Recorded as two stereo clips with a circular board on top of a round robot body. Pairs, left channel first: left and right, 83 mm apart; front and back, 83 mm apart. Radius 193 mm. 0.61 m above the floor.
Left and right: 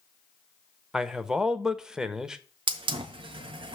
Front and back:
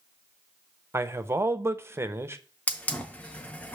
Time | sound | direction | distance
0.9 | a man speaking | 165° right | 1.0 m
2.7 | a hiss | 75° right | 0.6 m